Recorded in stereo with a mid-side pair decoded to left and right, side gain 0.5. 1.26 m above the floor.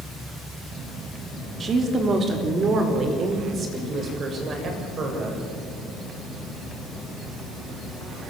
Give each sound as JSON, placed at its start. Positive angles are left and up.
{"t": 1.6, "sound": "a woman speaking", "azimuth_deg": -40, "distance_m": 3.5}